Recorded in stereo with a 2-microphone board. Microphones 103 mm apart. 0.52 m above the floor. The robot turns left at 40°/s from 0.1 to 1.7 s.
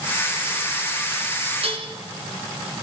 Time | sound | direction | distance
1.6 | dishes clattering | 70° right (ahead or behind) | 4 m